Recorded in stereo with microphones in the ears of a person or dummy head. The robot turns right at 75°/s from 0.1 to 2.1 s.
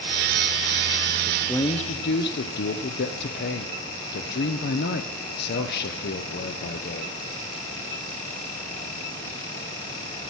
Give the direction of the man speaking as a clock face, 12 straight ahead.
12 o'clock.